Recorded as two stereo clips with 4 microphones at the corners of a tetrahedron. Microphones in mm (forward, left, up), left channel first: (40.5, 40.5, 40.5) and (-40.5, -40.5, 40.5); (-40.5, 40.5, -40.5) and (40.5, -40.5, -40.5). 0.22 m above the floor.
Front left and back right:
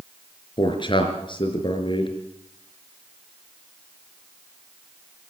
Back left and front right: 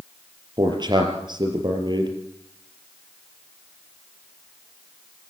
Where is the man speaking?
5° left, 4.5 m.